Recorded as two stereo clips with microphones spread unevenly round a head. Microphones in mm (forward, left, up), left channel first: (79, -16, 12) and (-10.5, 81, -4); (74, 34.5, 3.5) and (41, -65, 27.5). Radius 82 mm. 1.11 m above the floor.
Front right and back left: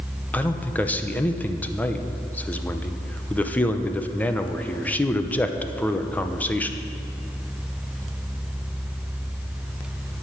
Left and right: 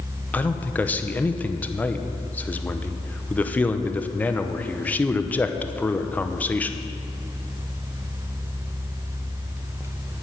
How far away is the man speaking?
About 0.8 m.